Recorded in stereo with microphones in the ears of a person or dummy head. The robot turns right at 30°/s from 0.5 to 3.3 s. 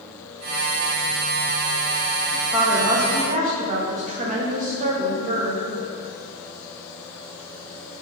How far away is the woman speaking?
About 0.5 m.